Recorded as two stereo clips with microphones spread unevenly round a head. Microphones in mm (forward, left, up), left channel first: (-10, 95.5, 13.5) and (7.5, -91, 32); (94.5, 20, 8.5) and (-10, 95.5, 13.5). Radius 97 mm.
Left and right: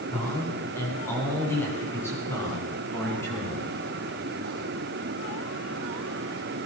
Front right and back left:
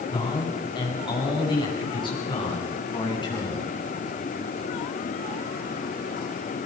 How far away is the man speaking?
About 9.5 m.